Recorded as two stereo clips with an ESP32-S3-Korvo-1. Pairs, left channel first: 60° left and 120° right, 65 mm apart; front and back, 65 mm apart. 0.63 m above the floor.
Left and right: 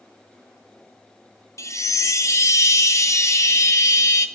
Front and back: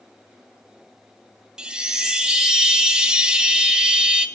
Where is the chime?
100° left, 0.5 m.